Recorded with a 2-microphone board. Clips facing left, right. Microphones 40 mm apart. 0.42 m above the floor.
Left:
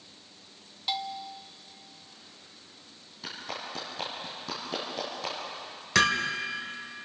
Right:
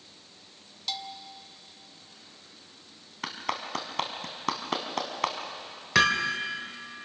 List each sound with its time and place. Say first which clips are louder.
0.9 s a bell: left 4 dB; 20° left (ahead or behind), 0.9 m
3.2 s a clap: right 5 dB; 75° right (ahead or behind), 2.5 m
6.0 s hammering: right 1 dB; 10° right (ahead or behind), 1.3 m